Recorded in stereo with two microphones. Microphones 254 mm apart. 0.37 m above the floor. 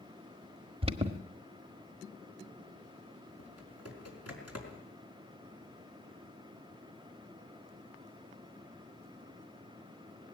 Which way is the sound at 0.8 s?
20° right (ahead or behind).